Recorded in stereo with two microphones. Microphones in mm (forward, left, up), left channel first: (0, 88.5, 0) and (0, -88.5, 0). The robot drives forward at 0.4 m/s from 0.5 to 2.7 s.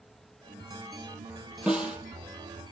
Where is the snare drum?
5° right (ahead or behind), 3.5 m.